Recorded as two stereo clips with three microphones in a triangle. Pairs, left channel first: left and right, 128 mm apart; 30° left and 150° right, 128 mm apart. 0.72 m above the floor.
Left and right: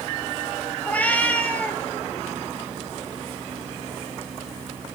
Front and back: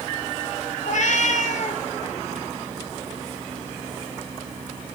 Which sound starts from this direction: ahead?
A cat meowing, at 0.8 s.